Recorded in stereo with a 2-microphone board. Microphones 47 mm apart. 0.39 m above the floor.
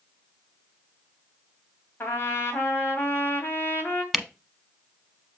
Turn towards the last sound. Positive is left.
turn(degrees=-5)  # may be behind; listen again after turning